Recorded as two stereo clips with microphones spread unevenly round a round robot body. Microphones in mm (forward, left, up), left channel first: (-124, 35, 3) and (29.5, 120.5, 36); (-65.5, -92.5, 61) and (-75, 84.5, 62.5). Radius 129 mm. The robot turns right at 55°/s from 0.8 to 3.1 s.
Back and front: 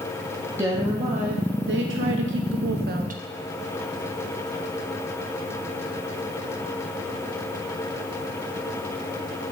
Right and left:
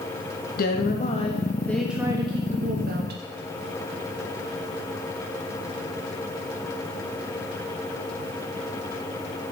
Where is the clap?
I don't hear a clap.